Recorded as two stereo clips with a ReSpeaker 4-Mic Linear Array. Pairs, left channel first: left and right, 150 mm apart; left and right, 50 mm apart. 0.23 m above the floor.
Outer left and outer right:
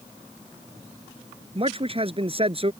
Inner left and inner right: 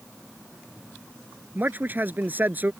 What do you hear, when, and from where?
1.6 s a man speaking: 35° right (ahead or behind)